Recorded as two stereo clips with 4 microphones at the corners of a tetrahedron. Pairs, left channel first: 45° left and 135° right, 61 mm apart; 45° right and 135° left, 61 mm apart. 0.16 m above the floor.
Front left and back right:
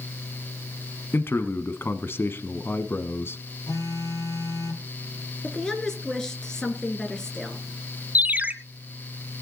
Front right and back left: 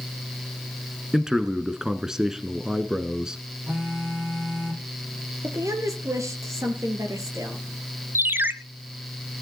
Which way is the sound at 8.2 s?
170° left.